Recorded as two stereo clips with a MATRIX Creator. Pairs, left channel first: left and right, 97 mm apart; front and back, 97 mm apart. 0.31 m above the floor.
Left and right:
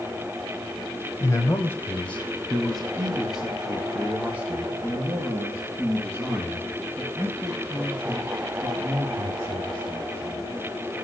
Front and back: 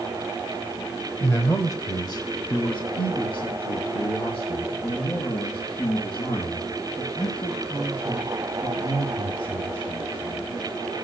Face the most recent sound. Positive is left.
turn(degrees=-30)